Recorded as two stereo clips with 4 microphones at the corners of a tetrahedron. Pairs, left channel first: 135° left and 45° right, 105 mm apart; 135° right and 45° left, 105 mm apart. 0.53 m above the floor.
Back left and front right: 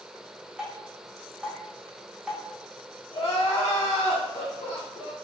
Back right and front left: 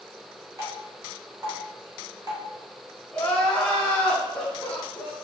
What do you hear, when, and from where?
0.6 s dripping: 25° left, 1.0 m
3.1 s crying: 145° left, 0.8 m